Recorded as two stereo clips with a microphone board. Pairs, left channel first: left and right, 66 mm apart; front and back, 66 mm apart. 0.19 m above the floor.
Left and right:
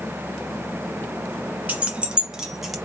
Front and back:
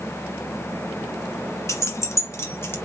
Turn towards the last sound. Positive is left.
turn(degrees=0)